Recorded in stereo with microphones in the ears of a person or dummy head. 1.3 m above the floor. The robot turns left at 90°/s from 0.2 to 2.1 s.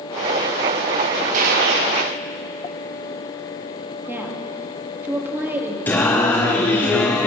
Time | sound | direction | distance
1.3 | a gunshot | 50° right | 1.3 m
4.1 | a woman speaking | 15° right (ahead or behind) | 1.9 m
5.9 | singing | 15° left (ahead or behind) | 1.0 m